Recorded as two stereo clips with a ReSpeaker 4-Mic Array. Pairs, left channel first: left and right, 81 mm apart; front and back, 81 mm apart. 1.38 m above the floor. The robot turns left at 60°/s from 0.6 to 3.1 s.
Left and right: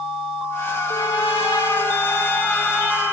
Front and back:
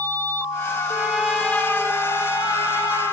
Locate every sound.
0.9 s a trumpet: 115° left, 3.5 m; by 3.1 s 20° right, 3.5 m